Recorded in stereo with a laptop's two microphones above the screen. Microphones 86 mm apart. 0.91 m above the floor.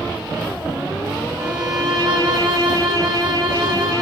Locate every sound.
1.4 s a violin: 45° right (ahead or behind), 1.3 m